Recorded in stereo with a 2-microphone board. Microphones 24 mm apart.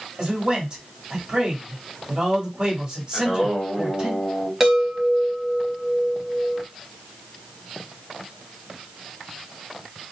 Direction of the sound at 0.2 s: 35° right (ahead or behind).